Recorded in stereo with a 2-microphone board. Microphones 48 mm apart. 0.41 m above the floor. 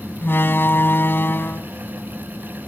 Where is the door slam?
50° left (ahead or behind).